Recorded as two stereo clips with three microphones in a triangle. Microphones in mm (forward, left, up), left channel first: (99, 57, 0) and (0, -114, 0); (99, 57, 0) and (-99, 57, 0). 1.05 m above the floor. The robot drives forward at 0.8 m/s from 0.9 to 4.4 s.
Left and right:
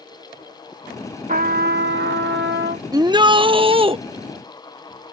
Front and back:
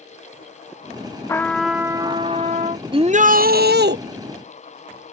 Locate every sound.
1.3 s a trumpet: 75° right; by 2.8 s 135° right
2.9 s a shout: 160° right; by 4.0 s 175° right